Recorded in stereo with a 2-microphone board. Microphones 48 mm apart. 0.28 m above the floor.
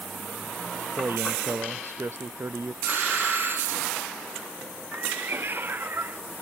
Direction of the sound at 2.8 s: 50° right (ahead or behind).